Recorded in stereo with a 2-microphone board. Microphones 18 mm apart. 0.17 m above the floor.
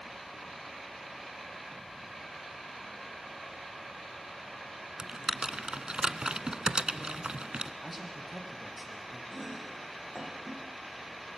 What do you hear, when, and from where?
5.0 s typing on a keyboard: 50° right (ahead or behind), 1.0 m
7.8 s a man speaking: 10° right (ahead or behind), 5.5 m
9.3 s chopping: 5° right (ahead or behind), 7.5 m